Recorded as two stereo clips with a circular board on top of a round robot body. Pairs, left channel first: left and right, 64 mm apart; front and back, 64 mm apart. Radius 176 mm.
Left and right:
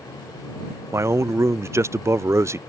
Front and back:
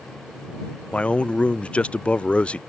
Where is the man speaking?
65° right.